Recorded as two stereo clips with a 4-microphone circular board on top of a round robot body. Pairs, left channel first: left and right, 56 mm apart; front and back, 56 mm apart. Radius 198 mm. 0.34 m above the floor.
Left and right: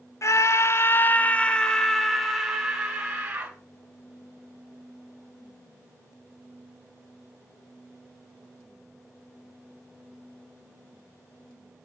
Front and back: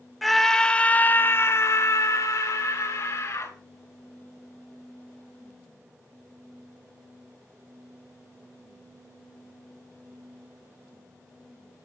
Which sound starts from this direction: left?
A scream, at 0.2 s.